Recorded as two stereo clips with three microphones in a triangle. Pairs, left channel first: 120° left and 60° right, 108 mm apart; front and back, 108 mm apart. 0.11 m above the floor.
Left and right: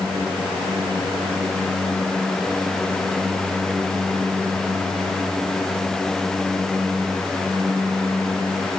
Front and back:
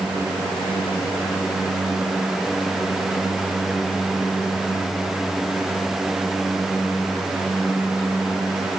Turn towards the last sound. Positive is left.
No sound to turn to.